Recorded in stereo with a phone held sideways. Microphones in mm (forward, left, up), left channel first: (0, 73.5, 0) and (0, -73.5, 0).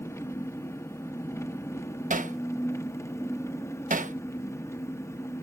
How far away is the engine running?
About 0.9 m.